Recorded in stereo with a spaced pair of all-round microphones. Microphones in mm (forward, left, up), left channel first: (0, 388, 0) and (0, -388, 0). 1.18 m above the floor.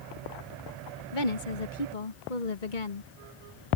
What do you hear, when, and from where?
1.1 s a woman speaking: 80° left